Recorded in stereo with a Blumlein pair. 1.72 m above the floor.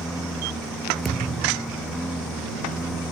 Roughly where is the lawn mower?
Ahead.